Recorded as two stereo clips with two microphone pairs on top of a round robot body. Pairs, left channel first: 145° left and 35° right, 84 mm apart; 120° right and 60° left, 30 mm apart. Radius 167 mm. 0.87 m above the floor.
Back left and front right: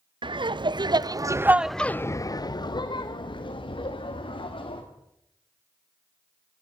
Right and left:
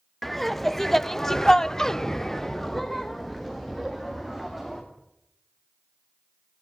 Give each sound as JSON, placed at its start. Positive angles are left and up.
{"t": 0.2, "sound": "laughter", "azimuth_deg": -40, "distance_m": 1.4}